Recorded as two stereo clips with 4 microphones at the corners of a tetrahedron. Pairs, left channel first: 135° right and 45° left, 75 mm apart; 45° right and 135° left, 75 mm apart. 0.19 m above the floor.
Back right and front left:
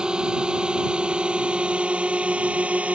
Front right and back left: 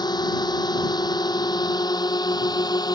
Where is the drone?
35° right; by 3.0 s 25° right.